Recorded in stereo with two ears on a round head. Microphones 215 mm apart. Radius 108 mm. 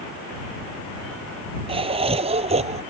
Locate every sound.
1.7 s laughter: 25° right (ahead or behind); by 2.8 s 30° right (ahead or behind)